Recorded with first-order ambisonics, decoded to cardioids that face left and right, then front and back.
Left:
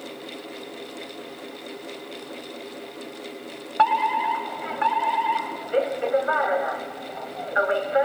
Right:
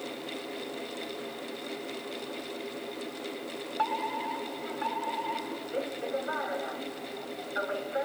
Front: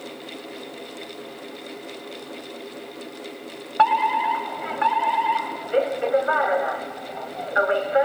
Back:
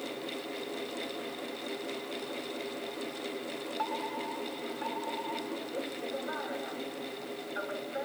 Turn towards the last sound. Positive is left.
turn(degrees=35)